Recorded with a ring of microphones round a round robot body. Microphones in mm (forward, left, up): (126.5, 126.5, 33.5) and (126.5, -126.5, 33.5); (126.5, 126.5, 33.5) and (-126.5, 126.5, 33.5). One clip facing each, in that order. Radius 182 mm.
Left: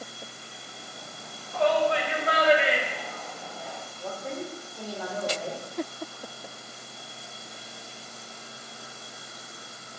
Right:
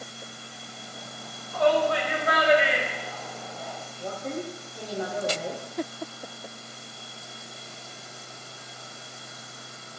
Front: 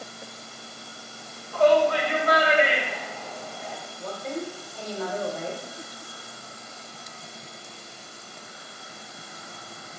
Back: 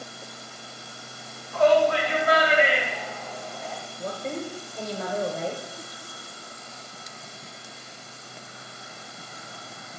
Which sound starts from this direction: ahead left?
A shout, at 1.5 s.